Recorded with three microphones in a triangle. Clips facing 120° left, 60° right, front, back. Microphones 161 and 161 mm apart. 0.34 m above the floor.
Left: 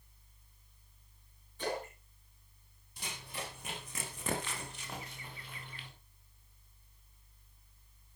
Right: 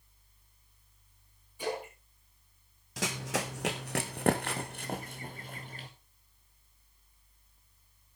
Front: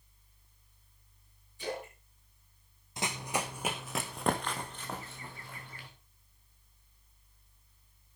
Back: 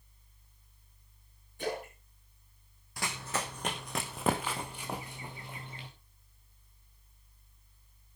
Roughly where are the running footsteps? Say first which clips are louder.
Right 11 dB, front 2 dB; right.